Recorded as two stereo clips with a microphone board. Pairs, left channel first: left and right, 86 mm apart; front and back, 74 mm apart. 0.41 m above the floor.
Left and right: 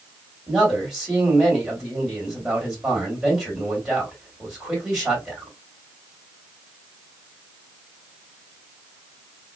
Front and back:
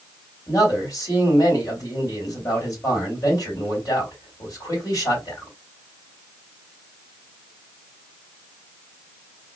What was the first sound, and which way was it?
A man speaking, 5° right.